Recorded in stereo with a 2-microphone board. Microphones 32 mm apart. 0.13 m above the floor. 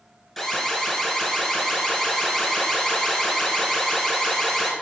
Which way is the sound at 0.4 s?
5° right (ahead or behind).